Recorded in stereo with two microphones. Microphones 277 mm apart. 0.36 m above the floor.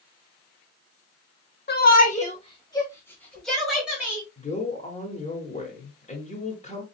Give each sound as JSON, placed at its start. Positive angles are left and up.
{"t": 1.7, "sound": "a shout", "side_deg": 35, "distance_m": 1.1}
{"t": 4.4, "sound": "a man speaking", "side_deg": 25, "distance_m": 0.9}